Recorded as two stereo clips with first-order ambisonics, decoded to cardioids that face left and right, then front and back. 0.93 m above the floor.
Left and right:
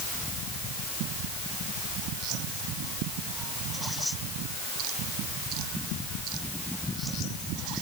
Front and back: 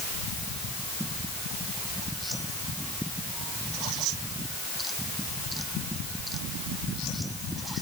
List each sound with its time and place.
Only background noise.